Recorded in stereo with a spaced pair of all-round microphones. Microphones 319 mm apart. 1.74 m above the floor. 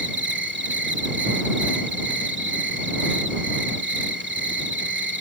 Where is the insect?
35° right (ahead or behind).